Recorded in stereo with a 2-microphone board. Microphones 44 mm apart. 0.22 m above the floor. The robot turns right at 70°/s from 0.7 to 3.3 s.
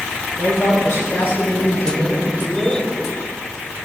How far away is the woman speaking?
About 3 m.